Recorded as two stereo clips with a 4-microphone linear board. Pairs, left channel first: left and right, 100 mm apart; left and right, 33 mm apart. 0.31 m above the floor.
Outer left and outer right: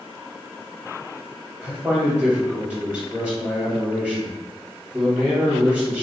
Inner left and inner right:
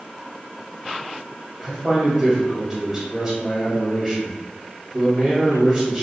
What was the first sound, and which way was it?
A man speaking, 15° right (ahead or behind).